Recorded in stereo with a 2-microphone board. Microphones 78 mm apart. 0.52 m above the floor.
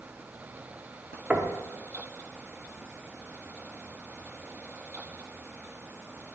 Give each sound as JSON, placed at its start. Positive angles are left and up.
{"t": 1.3, "sound": "knocking", "side_deg": -15, "distance_m": 0.7}